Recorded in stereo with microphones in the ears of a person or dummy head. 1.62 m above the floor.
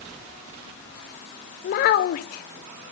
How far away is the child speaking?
About 0.6 m.